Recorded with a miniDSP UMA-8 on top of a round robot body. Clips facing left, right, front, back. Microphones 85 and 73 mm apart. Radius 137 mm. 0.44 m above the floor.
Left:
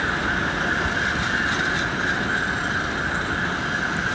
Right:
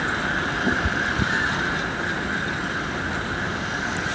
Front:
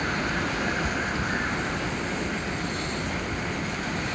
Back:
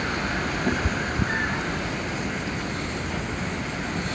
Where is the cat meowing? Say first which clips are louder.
Even, back 2 dB; 135° right.